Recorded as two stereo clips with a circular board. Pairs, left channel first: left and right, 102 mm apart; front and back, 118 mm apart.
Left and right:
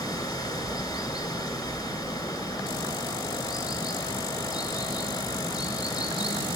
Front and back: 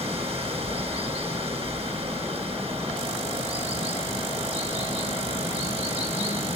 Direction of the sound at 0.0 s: 140° left.